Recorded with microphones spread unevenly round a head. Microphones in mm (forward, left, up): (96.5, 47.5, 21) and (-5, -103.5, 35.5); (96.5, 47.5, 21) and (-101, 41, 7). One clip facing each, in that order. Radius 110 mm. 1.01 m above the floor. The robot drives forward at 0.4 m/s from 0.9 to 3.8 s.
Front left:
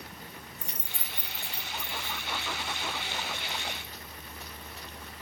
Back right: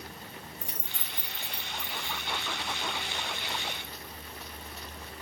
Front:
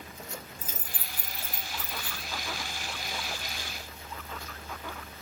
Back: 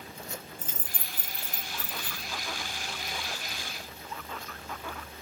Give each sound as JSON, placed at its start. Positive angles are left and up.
{"t": 0.6, "sound": "keys jangling", "azimuth_deg": 85, "distance_m": 0.6}